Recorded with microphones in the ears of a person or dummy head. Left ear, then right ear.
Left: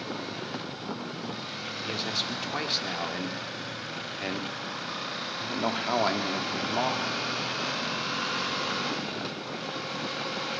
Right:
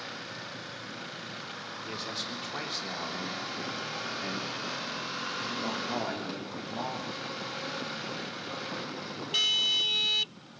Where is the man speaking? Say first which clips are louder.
Left 6 dB; 20° left (ahead or behind), 4 m; by 7.1 s 70° left (ahead or behind), 3.5 m.